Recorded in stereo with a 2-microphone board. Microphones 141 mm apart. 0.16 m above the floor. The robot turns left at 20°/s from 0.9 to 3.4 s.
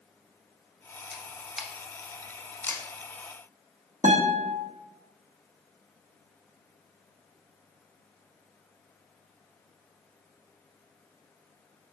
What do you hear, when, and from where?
1.1 s a camera shutter: 5° right (ahead or behind), 0.8 m; by 2.8 s 15° left (ahead or behind), 0.8 m
4.0 s a guitar: 60° right (ahead or behind), 2 m